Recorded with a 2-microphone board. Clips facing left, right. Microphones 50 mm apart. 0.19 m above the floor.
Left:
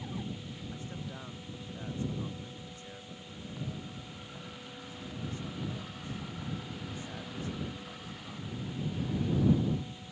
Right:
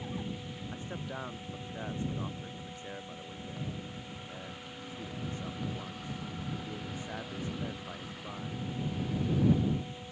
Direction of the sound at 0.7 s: 30° right (ahead or behind).